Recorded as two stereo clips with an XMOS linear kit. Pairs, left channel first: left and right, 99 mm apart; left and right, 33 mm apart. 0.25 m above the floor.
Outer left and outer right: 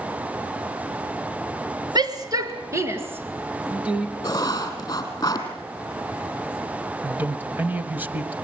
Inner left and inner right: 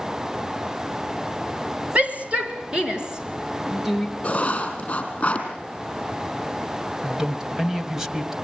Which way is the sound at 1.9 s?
45° right (ahead or behind).